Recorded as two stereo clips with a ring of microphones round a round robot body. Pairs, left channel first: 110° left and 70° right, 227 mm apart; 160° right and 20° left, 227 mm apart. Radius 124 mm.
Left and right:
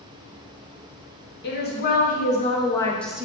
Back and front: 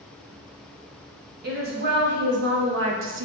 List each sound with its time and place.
1.4 s a woman speaking: 70° left, 1.2 m; by 3.2 s 15° left, 0.6 m